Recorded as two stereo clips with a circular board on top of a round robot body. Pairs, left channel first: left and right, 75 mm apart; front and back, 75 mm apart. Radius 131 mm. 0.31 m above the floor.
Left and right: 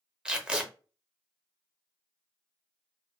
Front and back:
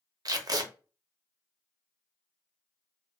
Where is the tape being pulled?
165° right, 0.7 m.